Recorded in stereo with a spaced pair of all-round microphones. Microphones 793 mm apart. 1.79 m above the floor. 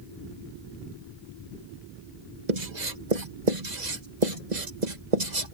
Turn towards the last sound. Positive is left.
turn(degrees=-60)  # may be behind; listen again after turning